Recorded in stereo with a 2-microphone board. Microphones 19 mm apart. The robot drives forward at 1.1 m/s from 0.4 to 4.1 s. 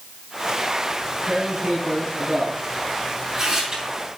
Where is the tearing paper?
45° right (ahead or behind), 4 m; by 3.8 s 25° right (ahead or behind), 6.5 m.